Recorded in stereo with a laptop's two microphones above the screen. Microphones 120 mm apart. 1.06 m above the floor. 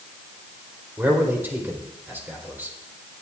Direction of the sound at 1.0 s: 15° right (ahead or behind).